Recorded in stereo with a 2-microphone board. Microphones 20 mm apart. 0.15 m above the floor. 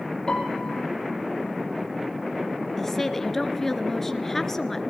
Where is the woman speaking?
15° left (ahead or behind), 2.0 m.